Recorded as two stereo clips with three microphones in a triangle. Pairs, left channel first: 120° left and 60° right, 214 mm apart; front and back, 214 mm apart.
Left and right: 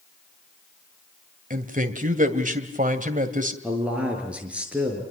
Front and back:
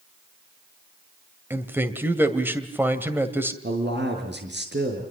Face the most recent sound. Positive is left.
turn(degrees=-145)